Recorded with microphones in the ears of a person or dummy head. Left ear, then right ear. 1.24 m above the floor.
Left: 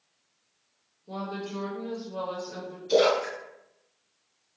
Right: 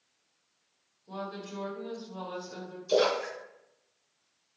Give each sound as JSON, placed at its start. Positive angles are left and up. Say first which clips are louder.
{"t": 1.1, "sound": "a woman speaking", "louder": "left 4 dB", "side_deg": 5, "distance_m": 1.3}
{"t": 2.9, "sound": "a splash", "louder": "left 4 dB", "side_deg": -35, "distance_m": 1.1}